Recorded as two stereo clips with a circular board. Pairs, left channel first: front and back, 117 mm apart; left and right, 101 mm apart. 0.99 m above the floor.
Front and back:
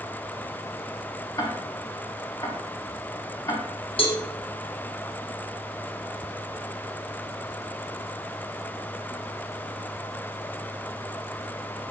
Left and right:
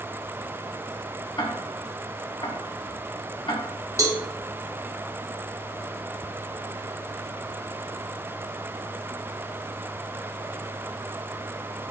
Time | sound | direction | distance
1.4 | ticking | 55° left | 0.8 m
4.0 | a cowbell | 35° right | 0.6 m